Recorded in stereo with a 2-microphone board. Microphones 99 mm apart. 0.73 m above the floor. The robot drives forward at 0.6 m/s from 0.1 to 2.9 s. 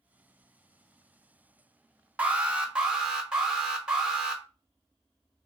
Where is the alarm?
15° right (ahead or behind), 0.7 m; by 4.4 s 10° right (ahead or behind), 1.1 m.